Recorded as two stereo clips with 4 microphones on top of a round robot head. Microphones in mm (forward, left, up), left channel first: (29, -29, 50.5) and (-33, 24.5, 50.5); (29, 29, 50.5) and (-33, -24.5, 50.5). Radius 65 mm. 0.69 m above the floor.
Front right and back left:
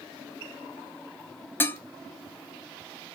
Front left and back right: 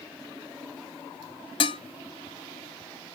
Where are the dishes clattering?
25° left, 0.6 m.